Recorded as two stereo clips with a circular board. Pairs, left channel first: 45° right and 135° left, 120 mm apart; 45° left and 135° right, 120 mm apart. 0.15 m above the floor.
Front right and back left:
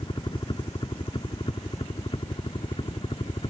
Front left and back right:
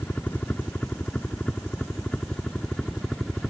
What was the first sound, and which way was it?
A helicopter, 25° right.